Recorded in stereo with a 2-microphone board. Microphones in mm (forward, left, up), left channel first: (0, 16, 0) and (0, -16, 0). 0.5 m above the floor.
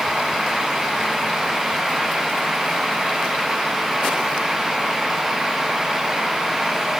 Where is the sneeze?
No sneeze in this recording.